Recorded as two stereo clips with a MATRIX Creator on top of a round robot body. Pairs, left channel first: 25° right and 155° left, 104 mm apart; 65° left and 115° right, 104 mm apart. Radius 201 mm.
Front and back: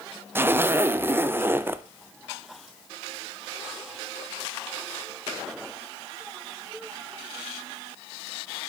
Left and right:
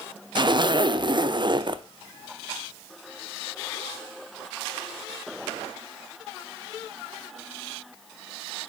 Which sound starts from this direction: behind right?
A zipper, at 0.3 s.